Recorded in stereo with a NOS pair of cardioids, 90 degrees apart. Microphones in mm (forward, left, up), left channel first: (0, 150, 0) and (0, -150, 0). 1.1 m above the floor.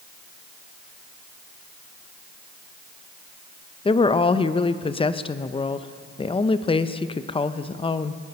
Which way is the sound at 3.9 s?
20° left.